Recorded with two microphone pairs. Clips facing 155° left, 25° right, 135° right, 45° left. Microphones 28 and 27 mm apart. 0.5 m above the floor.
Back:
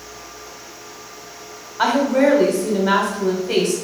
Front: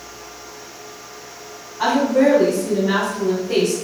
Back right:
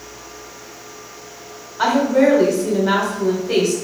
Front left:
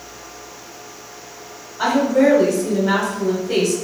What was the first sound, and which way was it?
A woman speaking, 165° left.